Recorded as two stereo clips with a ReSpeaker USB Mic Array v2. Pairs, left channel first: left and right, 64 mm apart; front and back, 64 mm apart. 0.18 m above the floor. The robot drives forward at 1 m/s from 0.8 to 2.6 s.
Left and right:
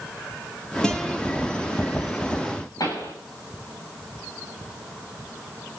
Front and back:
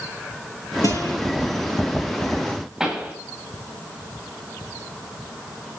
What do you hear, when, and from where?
0.8 s a guitar: 10° left, 4 m
2.8 s a pop: 95° left, 8 m